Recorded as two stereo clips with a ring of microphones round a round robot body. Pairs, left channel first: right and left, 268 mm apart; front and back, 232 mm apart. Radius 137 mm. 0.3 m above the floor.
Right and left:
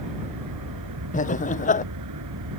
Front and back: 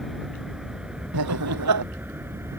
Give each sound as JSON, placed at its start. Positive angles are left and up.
{"t": 0.0, "sound": "an aircraft", "azimuth_deg": 90}
{"t": 1.1, "sound": "laughter", "azimuth_deg": -155}